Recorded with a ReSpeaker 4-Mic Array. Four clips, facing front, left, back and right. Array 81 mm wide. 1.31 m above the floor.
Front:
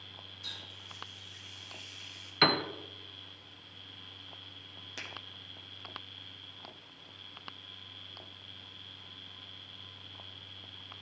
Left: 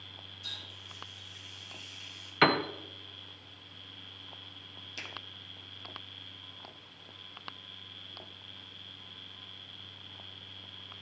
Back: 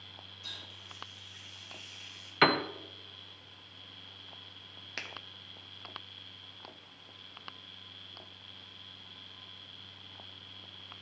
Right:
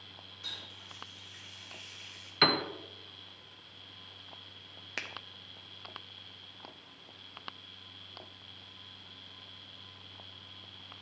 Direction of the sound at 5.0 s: 115° right.